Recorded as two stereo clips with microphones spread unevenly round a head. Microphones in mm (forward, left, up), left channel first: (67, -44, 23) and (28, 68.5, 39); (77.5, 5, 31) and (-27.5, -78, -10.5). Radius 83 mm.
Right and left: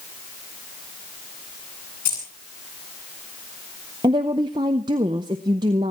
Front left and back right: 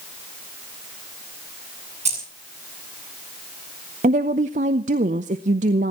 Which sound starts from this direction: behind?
A woman speaking, at 4.0 s.